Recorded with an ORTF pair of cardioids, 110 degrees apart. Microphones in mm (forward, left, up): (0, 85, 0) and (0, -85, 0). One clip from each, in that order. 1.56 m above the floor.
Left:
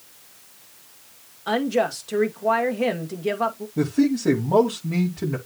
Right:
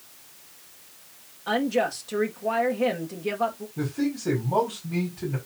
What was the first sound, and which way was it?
A woman speaking, 20° left.